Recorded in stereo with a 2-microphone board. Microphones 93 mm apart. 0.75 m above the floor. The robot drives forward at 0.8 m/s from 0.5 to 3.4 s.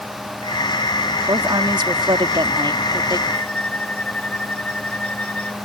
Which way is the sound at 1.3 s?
55° right (ahead or behind).